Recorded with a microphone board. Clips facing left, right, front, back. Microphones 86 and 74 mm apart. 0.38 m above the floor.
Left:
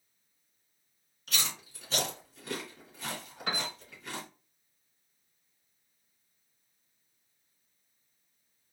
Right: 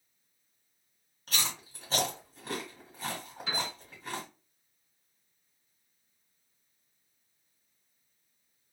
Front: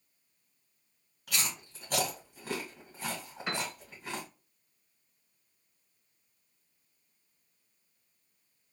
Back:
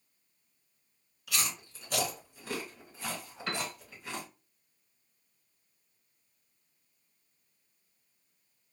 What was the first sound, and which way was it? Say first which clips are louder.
Chewing: right 1 dB, back 1 dB; 45° right.